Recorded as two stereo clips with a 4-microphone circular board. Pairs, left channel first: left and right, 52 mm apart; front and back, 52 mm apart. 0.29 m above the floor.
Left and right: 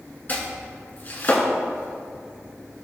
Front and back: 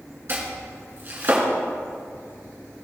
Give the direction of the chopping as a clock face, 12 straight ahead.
7 o'clock.